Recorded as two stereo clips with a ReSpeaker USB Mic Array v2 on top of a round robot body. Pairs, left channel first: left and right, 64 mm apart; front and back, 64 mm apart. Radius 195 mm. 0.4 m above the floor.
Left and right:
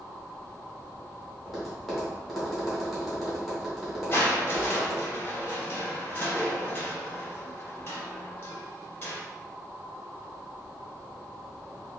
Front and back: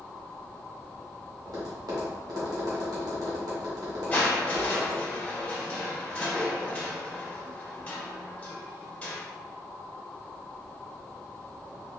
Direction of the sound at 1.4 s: 175° right.